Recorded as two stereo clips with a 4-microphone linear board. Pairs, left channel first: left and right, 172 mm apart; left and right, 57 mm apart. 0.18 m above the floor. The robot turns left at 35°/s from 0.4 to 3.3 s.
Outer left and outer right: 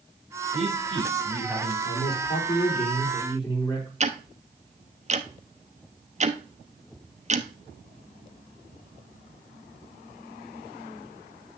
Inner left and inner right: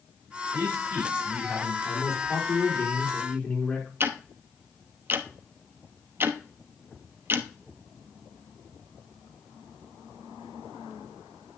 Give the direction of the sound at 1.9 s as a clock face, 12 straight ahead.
9 o'clock.